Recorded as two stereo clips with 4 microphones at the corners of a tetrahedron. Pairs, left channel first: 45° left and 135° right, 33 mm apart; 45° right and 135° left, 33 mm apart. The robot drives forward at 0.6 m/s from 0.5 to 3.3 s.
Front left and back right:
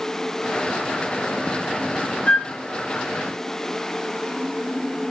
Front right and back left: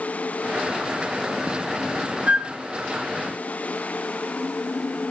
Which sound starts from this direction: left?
A flute, at 2.3 s.